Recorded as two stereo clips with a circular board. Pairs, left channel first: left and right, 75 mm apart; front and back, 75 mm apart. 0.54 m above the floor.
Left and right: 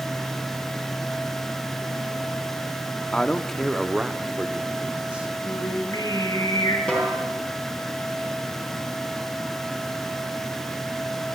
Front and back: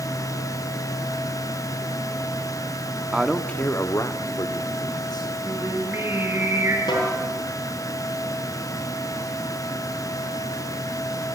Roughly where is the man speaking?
Behind left.